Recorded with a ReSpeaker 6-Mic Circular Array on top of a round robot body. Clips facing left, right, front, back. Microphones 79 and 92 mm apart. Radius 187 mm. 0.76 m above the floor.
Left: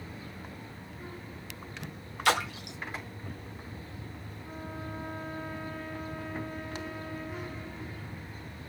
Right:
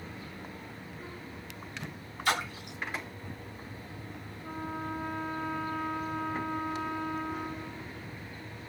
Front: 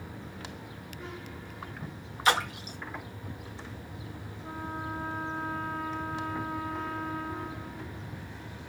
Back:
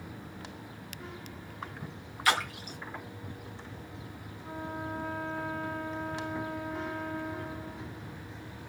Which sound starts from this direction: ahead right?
A trumpet, at 4.4 s.